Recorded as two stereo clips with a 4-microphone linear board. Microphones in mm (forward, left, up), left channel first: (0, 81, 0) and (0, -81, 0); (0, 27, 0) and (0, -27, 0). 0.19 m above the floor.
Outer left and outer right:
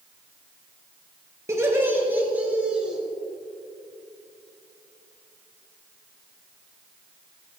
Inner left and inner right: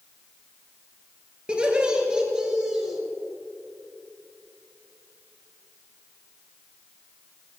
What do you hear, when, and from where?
1.5 s laughter: 20° right (ahead or behind), 3.5 m; by 3.0 s 5° right (ahead or behind), 3 m